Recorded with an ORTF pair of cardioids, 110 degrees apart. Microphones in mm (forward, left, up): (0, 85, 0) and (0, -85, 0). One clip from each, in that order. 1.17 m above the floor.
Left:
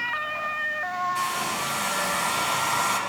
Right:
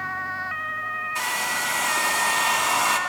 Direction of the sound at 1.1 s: 35° right.